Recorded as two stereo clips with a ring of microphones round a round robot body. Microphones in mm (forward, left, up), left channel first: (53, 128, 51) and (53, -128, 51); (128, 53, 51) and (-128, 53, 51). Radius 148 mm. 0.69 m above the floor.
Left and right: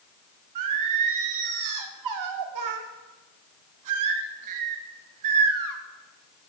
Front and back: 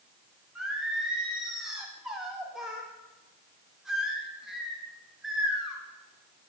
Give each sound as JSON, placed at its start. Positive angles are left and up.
{"t": 0.6, "sound": "singing", "azimuth_deg": -90, "distance_m": 0.8}